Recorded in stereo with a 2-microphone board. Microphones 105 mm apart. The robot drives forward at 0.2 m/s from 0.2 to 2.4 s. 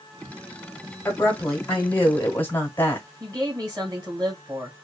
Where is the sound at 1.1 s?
20° left (ahead or behind), 1.0 m.